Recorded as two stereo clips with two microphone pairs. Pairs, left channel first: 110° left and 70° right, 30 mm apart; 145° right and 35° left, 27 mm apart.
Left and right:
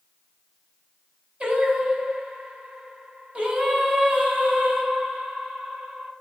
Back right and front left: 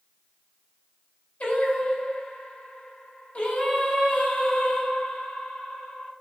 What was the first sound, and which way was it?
Singing, 110° right.